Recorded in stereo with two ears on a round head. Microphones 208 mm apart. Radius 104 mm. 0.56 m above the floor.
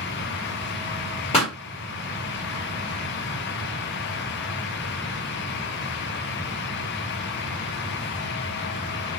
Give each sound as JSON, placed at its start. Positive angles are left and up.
{"t": 1.3, "sound": "a pop", "side_deg": 25, "distance_m": 2.0}